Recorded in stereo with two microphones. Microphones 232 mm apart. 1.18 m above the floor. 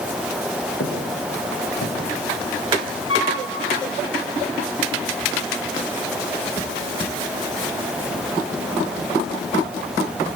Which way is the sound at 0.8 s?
70° left (ahead or behind).